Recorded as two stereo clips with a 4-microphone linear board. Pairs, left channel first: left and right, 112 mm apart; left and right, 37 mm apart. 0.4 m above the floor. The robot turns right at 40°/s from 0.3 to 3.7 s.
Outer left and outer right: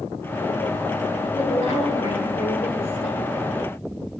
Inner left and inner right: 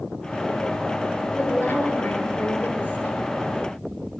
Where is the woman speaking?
65° left, 6.5 m; by 3.2 s 140° left, 6.5 m.